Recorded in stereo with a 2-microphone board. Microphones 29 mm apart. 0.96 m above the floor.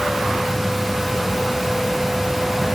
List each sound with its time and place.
Only background noise.